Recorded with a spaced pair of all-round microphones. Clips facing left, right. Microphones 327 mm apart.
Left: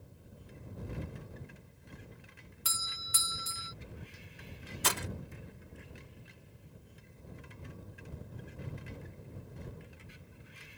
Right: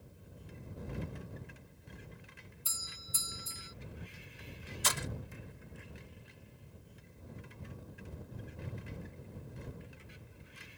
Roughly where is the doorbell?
Left.